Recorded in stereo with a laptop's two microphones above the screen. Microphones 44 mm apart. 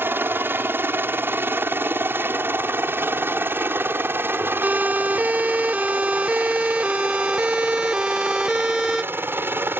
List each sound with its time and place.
0.0 s a helicopter: 55° right (ahead or behind)
4.6 s a siren: 40° right (ahead or behind); by 9.0 s 10° right (ahead or behind)